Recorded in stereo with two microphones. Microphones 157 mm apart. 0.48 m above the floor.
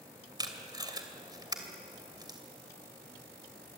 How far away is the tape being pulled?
About 2.5 m.